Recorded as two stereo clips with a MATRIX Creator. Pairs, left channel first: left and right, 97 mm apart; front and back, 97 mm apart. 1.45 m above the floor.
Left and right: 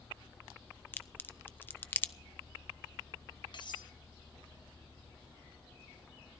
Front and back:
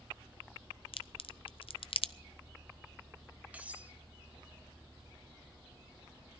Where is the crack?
20° left, 0.6 m.